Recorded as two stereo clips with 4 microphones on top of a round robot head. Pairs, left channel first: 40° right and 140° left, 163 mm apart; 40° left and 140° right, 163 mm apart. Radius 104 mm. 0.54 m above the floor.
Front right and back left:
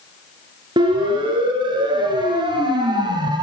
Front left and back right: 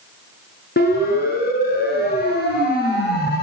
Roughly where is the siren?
Left.